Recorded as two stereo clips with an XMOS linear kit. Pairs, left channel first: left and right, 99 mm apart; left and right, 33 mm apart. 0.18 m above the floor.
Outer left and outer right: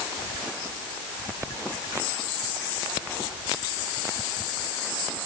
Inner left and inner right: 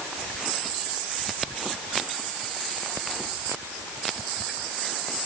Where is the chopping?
I don't hear chopping.